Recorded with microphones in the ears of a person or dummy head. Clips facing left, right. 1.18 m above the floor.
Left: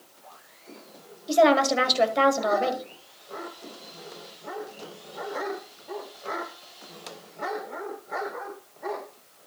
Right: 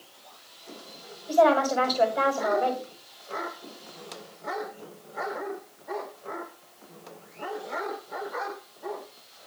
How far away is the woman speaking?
About 2 m.